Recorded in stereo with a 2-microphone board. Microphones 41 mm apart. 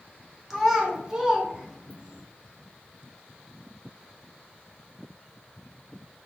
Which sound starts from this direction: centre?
A child speaking, at 0.5 s.